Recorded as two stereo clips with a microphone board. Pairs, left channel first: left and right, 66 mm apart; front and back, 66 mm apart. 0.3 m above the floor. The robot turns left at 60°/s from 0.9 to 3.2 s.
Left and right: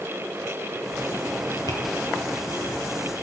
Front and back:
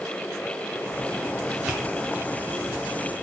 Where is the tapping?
95° left, 2.5 m; by 1.8 s 90° left, 2.5 m.